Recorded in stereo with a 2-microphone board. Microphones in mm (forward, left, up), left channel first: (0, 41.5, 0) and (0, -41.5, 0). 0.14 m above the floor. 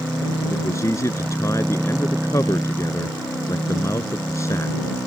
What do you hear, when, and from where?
0.5 s a man speaking: 40° left (ahead or behind)